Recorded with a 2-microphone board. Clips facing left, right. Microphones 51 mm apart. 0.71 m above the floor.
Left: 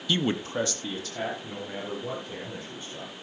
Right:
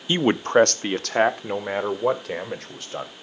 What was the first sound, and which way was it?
A man speaking, 25° right (ahead or behind).